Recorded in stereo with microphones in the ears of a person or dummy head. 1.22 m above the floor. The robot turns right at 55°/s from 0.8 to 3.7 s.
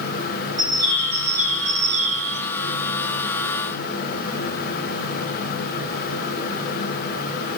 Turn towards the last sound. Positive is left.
turn(degrees=0)